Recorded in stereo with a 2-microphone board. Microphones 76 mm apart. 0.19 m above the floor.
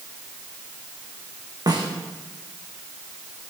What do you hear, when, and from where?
1.7 s a snare drum: 65° right (ahead or behind), 4.5 m